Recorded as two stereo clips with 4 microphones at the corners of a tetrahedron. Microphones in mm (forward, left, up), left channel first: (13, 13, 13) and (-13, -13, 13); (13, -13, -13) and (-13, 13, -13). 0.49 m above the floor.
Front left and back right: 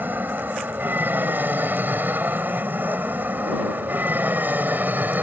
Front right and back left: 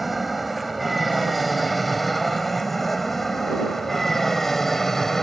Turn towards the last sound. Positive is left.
turn(degrees=-125)